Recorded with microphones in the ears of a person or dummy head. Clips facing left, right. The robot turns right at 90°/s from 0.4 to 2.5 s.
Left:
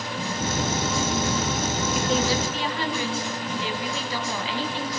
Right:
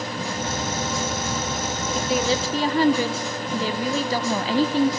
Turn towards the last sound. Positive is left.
turn(degrees=-140)